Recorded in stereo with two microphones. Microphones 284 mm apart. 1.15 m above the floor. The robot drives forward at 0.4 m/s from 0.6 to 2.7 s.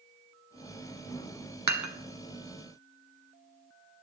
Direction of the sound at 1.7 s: 75° right (ahead or behind).